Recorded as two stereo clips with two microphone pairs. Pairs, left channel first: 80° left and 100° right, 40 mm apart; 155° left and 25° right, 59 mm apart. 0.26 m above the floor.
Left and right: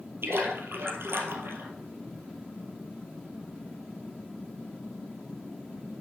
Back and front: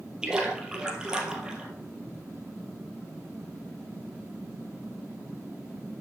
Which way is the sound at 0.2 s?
105° right.